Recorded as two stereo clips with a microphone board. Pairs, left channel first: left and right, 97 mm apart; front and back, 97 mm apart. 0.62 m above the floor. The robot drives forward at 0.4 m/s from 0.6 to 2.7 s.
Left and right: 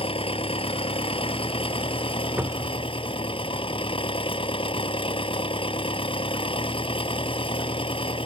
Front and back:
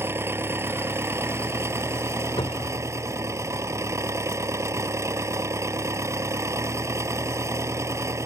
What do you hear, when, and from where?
0.0 s an engine running: 115° left; by 8.3 s 120° left
2.4 s a cupboard door: 20° right; by 2.9 s 25° right